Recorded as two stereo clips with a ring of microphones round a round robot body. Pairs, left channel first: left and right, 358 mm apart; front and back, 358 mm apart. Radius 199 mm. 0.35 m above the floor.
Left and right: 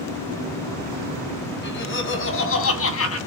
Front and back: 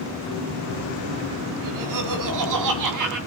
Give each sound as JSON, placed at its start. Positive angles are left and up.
{"t": 1.6, "sound": "laughter", "azimuth_deg": 145, "distance_m": 3.0}